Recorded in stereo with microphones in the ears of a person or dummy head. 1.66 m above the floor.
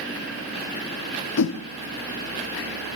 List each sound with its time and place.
1.4 s a whoosh: 80° left, 0.8 m